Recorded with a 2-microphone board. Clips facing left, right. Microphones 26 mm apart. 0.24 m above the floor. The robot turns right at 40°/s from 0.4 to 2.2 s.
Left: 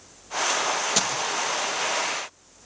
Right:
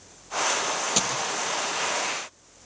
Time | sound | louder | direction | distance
1.0 | a dropped coin | left 1 dB | centre (ahead or behind) | 3.5 m